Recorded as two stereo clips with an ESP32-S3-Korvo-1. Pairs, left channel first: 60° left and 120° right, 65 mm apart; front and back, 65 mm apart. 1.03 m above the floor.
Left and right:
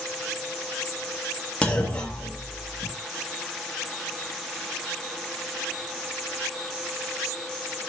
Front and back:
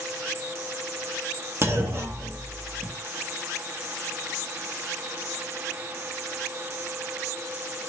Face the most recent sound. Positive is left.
turn(degrees=135)